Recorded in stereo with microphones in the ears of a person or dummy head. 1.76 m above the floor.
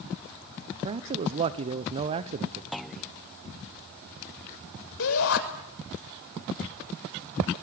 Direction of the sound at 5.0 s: 85° left.